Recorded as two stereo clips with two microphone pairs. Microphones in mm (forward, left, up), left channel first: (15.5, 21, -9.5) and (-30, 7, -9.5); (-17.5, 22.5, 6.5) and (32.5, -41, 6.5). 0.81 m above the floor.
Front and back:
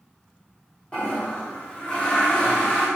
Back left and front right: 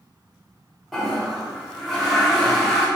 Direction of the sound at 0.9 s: 40° left.